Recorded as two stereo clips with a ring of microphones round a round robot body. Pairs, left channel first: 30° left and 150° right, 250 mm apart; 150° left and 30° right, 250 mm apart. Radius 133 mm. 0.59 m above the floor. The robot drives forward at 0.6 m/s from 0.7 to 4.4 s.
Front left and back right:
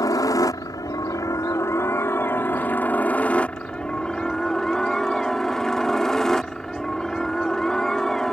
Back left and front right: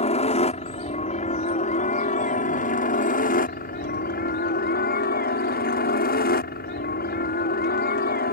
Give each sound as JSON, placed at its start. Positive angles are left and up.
{"t": 0.0, "sound": "a helicopter", "azimuth_deg": 100}